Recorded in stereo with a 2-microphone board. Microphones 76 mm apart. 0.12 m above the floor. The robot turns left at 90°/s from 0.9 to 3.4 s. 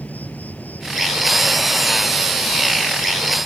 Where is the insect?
155° left; by 3.5 s 70° right.